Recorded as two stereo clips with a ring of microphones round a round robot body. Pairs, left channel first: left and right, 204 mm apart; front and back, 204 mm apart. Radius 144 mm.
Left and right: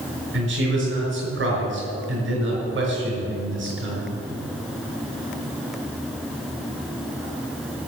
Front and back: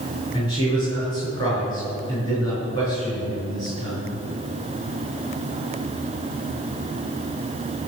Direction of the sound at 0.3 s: 75° right.